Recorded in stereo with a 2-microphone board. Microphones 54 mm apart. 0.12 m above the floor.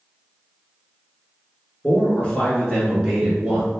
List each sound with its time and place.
1.8 s a man speaking: 35° left (ahead or behind), 1.5 m; by 3.7 s 5° right (ahead or behind), 1.8 m